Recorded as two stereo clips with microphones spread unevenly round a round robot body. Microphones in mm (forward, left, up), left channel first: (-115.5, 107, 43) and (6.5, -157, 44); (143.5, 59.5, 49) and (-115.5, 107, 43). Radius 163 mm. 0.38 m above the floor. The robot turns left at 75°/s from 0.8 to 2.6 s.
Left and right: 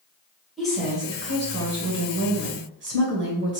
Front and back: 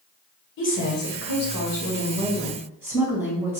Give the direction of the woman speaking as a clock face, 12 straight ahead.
11 o'clock.